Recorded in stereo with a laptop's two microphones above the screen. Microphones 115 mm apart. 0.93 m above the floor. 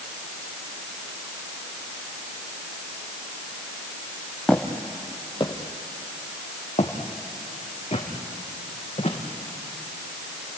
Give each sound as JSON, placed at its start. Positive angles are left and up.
{"t": 4.5, "sound": "footsteps", "side_deg": 10, "distance_m": 1.4}